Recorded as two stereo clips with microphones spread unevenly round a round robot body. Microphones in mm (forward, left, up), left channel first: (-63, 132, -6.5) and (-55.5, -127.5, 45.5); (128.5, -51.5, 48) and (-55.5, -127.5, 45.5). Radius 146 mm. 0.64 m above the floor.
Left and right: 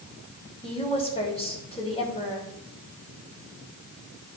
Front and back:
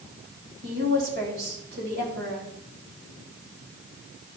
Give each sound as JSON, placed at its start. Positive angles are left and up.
{"t": 0.6, "sound": "a woman speaking", "azimuth_deg": 155, "distance_m": 3.5}